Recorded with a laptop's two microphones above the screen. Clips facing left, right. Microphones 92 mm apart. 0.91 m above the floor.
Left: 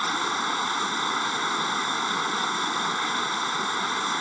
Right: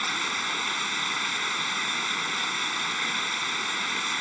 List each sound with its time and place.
0.0 s running water: 30° left (ahead or behind)